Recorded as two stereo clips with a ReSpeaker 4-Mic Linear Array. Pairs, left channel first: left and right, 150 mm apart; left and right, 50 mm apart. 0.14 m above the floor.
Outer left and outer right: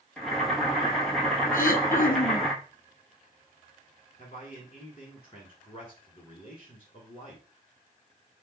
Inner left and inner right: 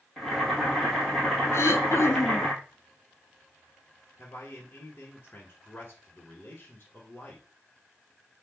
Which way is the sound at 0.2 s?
Centre (ahead or behind).